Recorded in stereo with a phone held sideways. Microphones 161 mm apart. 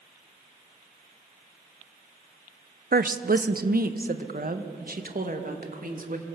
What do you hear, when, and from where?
2.9 s a woman speaking: 70° right (ahead or behind), 0.9 m; by 6.2 s 60° right (ahead or behind), 3 m